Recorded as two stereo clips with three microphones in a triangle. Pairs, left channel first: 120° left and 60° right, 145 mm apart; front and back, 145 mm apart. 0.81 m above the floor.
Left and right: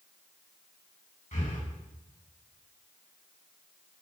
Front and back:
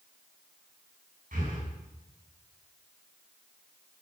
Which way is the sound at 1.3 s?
155° left.